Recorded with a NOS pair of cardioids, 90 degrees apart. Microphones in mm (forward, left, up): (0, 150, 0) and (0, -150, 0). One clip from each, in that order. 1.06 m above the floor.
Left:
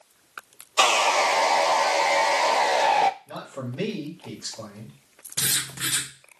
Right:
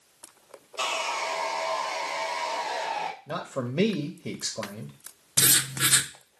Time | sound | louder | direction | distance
0.8 | sawing | left 9 dB | 65° left | 0.5 m
3.3 | a man speaking | right 3 dB | 55° right | 0.9 m
5.4 | writing | right 3 dB | 35° right | 0.6 m